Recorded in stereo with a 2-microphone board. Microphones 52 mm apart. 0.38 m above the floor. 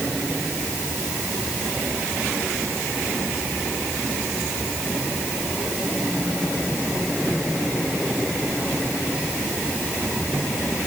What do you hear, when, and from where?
Only background noise.